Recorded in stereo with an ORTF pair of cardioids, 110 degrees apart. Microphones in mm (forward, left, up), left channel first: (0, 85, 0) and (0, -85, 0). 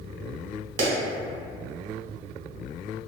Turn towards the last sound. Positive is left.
turn(degrees=-40)